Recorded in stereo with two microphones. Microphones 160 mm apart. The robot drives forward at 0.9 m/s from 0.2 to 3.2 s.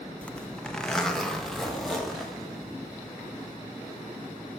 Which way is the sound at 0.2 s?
10° left (ahead or behind).